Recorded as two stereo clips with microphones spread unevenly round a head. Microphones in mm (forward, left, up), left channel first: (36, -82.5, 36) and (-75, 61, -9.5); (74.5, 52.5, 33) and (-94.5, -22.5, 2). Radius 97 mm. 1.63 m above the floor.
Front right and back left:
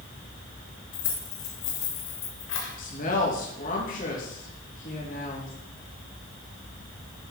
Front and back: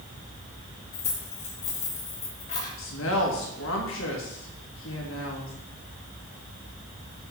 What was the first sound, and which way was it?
Keys jangling, 30° right.